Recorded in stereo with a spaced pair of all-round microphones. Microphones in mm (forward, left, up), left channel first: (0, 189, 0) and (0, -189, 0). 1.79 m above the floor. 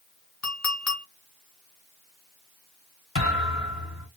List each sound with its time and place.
0.4 s a clink: 45° left (ahead or behind), 1.6 m
3.1 s a thud: 35° left (ahead or behind), 1.9 m